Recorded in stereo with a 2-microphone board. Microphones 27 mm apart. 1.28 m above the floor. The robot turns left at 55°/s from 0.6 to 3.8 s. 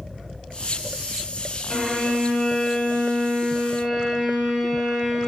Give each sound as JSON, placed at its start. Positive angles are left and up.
{"t": 1.7, "sound": "a violin", "azimuth_deg": 115, "distance_m": 1.7}